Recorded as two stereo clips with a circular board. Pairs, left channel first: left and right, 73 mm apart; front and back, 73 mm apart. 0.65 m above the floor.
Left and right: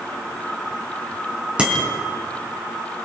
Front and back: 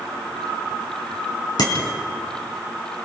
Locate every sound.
1.6 s a bicycle bell: 15° right, 5 m